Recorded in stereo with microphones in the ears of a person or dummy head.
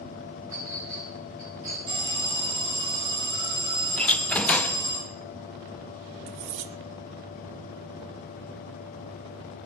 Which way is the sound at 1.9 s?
30° right (ahead or behind).